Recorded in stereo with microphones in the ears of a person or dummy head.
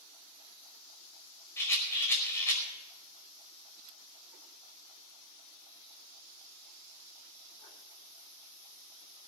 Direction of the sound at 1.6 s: 5° left (ahead or behind).